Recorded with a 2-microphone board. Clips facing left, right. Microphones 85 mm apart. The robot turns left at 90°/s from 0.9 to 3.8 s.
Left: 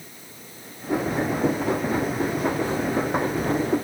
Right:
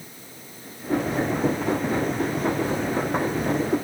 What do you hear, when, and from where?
Only background noise.